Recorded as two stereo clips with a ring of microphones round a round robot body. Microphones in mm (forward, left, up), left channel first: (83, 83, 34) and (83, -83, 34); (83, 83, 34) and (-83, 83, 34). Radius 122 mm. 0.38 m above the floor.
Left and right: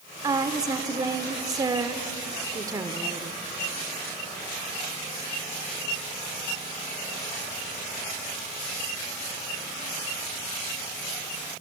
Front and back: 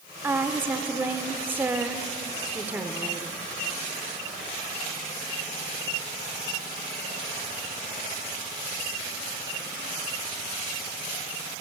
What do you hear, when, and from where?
0.2 s a woman speaking: 120° right, 1.1 m